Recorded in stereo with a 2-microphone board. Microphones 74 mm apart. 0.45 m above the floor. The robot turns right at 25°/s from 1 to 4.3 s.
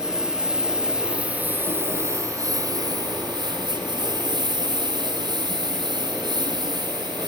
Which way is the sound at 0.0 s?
10° right (ahead or behind).